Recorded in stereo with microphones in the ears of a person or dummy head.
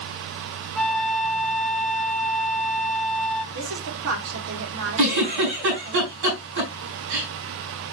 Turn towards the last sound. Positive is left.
turn(degrees=-70)  # may be behind; listen again after turning